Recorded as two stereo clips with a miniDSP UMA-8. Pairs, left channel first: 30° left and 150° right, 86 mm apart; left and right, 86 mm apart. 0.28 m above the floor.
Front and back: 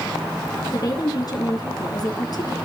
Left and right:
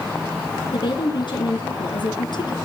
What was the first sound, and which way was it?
A woman speaking, 65° left.